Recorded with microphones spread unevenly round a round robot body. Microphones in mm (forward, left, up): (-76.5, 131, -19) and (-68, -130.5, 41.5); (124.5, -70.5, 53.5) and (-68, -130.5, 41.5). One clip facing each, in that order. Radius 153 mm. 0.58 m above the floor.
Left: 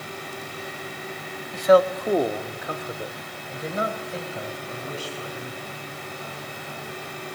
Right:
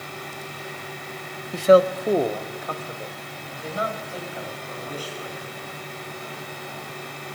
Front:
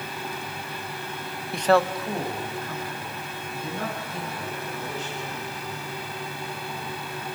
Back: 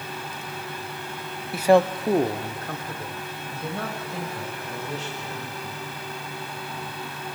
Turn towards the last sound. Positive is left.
turn(degrees=150)